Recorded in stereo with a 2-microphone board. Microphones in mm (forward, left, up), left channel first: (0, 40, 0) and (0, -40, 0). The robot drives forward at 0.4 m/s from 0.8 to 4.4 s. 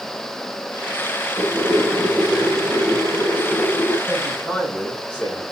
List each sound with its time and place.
1.4 s boiling: 15° left (ahead or behind), 5 m; by 4.0 s 10° left (ahead or behind), 6 m
4.1 s a man speaking: 15° left (ahead or behind), 6.5 m